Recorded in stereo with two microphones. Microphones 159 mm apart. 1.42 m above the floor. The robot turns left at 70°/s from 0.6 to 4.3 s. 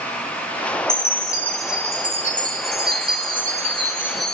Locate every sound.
0.9 s a chime: 50° left, 1.8 m; by 4.3 s 175° left, 1.8 m